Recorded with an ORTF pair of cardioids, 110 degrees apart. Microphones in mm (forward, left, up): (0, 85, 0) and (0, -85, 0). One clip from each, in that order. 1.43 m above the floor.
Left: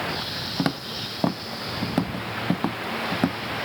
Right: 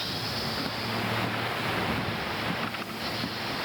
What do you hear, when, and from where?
0.6 s footsteps: 65° left